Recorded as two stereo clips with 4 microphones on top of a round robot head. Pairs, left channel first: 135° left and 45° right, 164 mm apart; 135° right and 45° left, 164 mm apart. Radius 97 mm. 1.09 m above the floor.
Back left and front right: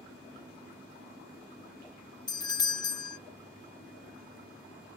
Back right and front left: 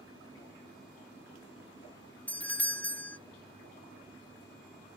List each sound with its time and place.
2.3 s a doorbell: 155° left, 0.5 m